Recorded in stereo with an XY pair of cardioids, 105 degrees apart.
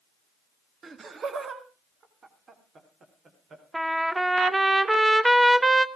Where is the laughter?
40° right, 1.5 m; by 3.6 s 45° right, 3.5 m.